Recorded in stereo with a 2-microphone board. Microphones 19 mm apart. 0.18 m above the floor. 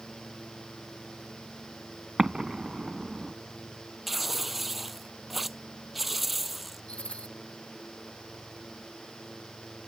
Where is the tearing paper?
5° right (ahead or behind).